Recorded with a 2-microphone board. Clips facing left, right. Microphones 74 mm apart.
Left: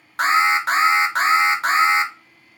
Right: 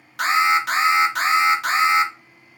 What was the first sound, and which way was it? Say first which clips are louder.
An alarm: left 1 dB; 30° left (ahead or behind).